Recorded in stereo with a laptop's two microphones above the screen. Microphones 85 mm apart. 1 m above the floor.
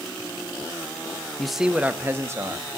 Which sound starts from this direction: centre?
A man speaking, at 1.4 s.